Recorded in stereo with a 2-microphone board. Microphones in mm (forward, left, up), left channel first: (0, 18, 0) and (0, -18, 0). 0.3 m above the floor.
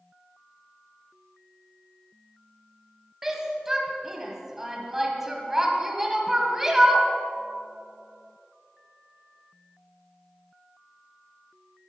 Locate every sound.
3.2 s a shout: 10° right (ahead or behind), 2 m